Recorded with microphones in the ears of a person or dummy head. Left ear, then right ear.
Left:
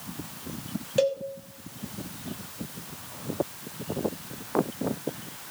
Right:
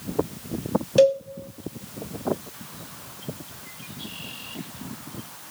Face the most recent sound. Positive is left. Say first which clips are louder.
# right 7 dB
turn(degrees=-10)  # may be behind; listen again after turning